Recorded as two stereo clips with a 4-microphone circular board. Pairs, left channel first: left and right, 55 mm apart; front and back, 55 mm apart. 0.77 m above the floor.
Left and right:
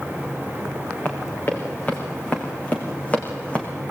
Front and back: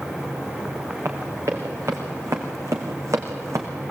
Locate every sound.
1.1 s running footsteps: 140° left, 5.5 m; by 3.7 s 155° left, 3.5 m